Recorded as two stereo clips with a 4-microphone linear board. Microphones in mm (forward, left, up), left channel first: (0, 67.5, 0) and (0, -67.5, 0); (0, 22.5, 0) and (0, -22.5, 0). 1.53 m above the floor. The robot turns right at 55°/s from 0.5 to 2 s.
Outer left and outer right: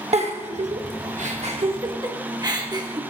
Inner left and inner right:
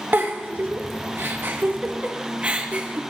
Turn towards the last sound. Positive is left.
turn(degrees=-30)  # may be behind; listen again after turning